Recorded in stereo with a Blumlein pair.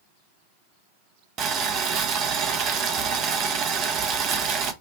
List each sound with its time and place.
1.4 s boiling: 30° right, 0.6 m